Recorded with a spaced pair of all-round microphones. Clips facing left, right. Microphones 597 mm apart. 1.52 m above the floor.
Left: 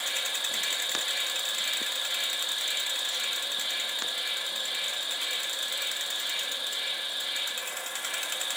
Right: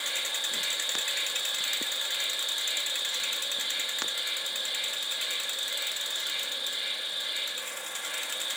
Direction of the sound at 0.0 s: 70° left (ahead or behind).